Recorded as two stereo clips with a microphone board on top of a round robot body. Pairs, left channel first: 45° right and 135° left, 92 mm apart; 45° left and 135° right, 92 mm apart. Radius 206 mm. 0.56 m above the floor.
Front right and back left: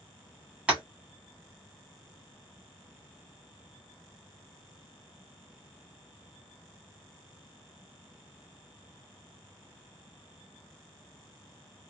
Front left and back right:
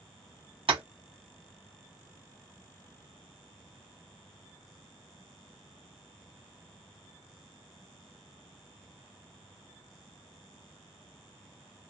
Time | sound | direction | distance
0.7 | tapping | 150° right | 1.6 m